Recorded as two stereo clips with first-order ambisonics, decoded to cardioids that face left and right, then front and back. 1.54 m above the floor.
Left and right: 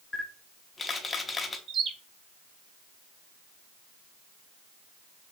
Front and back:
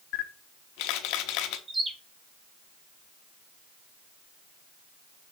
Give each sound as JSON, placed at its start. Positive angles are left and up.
{"t": 0.1, "sound": "a camera shutter", "azimuth_deg": 15, "distance_m": 0.6}
{"t": 1.7, "sound": "a bird", "azimuth_deg": -110, "distance_m": 0.6}